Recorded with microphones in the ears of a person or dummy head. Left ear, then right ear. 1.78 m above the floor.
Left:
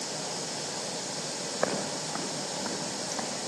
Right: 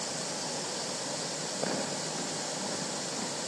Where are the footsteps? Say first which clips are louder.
Left 4 dB; 70° left (ahead or behind), 6 m.